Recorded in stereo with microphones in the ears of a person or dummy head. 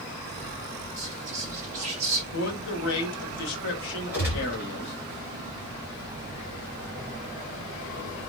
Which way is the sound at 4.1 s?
10° right (ahead or behind).